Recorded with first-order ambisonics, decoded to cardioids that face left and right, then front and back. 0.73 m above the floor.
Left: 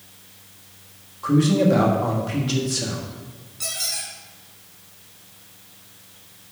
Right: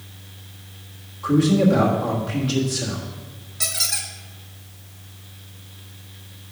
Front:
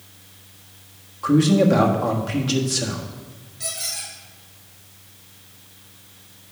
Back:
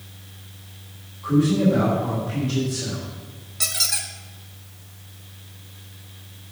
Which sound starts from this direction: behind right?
A squeak, at 3.6 s.